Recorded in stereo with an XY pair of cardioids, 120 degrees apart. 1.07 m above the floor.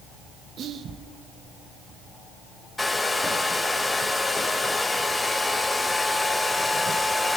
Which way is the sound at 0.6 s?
50° right.